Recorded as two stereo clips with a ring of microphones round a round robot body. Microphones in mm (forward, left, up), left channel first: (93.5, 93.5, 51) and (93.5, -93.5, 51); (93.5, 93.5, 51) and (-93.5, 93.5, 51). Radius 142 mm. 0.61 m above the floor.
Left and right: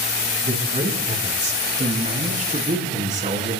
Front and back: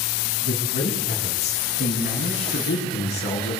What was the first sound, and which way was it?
A man speaking, 40° right.